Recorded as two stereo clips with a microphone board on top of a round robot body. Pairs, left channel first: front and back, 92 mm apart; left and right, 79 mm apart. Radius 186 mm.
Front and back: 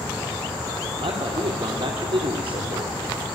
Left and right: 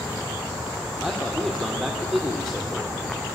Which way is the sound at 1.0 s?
Straight behind.